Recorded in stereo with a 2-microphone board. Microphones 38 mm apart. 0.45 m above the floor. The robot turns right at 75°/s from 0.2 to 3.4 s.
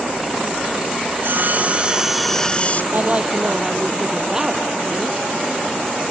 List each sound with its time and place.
1.1 s sawing: 80° right; by 2.8 s 45° left
2.9 s a woman speaking: 50° right; by 5.3 s 15° right